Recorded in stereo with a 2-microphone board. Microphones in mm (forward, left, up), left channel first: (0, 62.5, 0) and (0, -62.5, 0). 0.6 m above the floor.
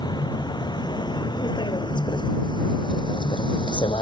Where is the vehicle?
35° left (ahead or behind); by 4.0 s 40° left (ahead or behind).